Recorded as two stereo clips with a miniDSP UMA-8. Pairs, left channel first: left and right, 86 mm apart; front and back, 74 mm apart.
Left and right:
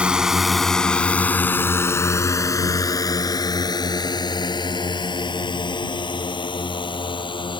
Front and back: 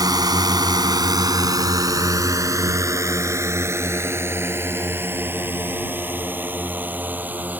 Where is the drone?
165° right; by 7.6 s 115° left.